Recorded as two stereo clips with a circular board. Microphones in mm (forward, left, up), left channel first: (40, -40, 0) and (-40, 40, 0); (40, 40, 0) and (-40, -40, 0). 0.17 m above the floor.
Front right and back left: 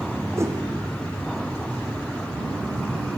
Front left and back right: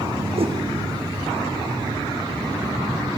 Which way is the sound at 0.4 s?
160° right.